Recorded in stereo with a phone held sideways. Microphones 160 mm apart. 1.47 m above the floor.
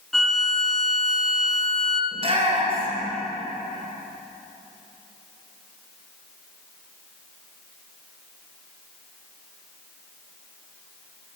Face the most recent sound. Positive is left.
turn(degrees=-35)  # may be behind; listen again after turning